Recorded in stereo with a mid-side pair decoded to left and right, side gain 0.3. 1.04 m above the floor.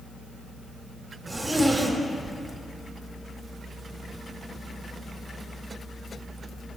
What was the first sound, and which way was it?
A zipper, 40° right.